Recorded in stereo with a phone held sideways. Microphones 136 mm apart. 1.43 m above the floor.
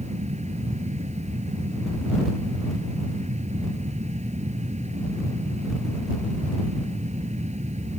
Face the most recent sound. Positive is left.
turn(degrees=-55)  # may be behind; listen again after turning